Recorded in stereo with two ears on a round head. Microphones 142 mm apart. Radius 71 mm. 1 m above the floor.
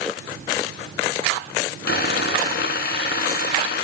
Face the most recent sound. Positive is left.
turn(degrees=60)  # may be behind; listen again after turning